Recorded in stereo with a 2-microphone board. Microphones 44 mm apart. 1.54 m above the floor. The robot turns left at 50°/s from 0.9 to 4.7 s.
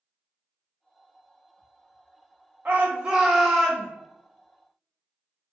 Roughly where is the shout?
Behind right.